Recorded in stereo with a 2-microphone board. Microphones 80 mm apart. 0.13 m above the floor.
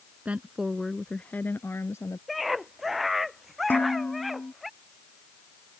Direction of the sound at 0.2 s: 20° right (ahead or behind).